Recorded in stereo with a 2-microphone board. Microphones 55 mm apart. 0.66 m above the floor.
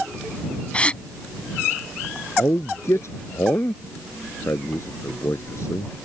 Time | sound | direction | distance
0.7 | a gasp | 20° left (ahead or behind) | ?
2.4 | a man speaking | 55° left (ahead or behind) | ?